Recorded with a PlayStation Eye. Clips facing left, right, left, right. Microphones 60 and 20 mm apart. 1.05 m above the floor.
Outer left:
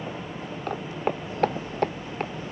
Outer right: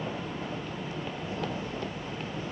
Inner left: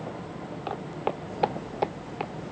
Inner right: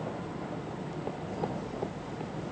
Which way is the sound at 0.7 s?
65° left (ahead or behind).